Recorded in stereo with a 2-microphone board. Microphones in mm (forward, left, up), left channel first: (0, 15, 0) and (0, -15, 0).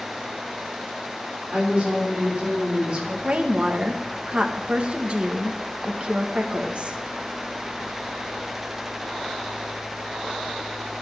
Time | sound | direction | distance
1.5 | a woman speaking | 35° right (ahead or behind) | 5.5 m
3.2 | a woman speaking | 40° right (ahead or behind) | 1.4 m